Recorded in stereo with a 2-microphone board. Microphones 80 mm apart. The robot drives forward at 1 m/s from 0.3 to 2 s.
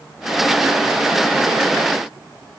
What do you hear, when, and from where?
Only background noise.